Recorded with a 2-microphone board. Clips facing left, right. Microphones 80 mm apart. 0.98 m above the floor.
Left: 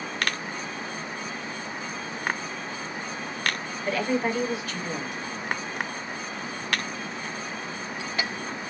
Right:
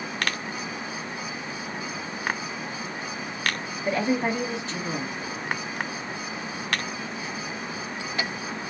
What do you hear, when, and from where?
3.9 s a woman speaking: 25° right (ahead or behind), 1.1 m